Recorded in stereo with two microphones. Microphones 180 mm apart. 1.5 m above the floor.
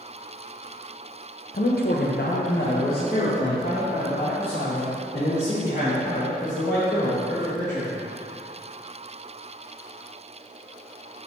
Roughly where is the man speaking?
Left.